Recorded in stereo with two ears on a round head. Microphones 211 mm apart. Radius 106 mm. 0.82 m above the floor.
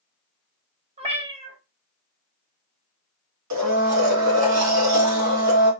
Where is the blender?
80° right, 1.1 m.